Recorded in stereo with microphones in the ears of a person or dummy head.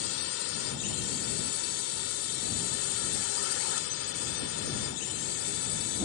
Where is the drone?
85° left; by 6.1 s 75° left (ahead or behind).